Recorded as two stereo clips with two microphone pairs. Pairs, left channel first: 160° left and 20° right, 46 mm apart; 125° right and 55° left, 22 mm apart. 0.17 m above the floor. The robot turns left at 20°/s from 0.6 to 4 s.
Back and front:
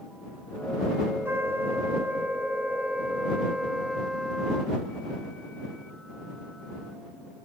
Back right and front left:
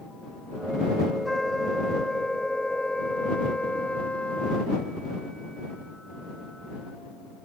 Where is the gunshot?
I don't hear a gunshot.